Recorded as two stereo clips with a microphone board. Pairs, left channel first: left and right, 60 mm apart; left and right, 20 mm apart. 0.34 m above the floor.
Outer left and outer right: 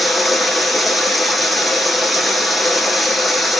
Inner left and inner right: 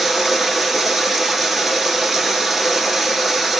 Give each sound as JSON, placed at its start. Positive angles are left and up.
{"t": 0.0, "sound": "running water", "side_deg": 0, "distance_m": 1.0}